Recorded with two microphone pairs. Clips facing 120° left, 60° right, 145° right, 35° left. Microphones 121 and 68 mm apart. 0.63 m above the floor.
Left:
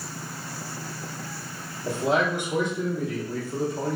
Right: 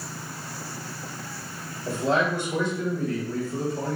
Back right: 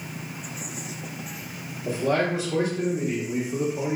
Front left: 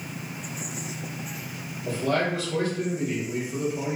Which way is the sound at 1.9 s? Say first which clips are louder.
Even, back right 2 dB; 170° left.